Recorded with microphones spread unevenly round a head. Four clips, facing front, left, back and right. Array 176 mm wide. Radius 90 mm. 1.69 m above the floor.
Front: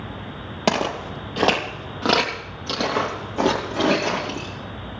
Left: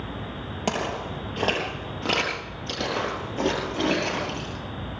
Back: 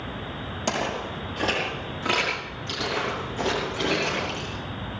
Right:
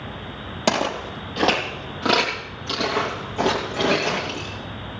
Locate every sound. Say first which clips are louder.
0.7 s footsteps: right 6 dB, front 6 dB; 25° right, 3 m; by 4.5 s 5° left, 5.5 m